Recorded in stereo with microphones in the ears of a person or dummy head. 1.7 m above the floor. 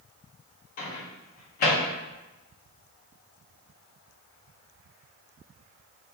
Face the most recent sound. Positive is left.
turn(degrees=50)  # may be behind; listen again after turning